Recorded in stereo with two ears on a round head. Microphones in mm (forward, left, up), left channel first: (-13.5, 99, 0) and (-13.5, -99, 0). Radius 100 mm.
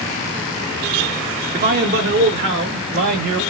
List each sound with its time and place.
1.5 s a man speaking: 40° right (ahead or behind), 1.3 m; by 3.4 s 65° right (ahead or behind), 3 m